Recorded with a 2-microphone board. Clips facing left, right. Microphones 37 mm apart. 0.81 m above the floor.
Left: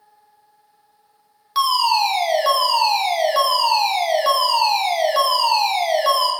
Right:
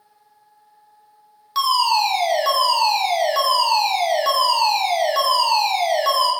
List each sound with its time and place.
1.6 s a fire alarm: 5° left (ahead or behind), 1.4 m